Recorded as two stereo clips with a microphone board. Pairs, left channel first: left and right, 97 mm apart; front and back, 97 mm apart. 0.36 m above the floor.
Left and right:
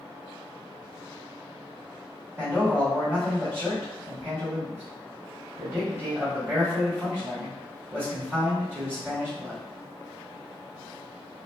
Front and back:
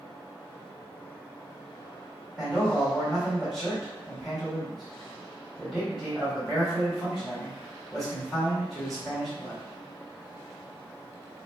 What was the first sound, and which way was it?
A man speaking, 85° right.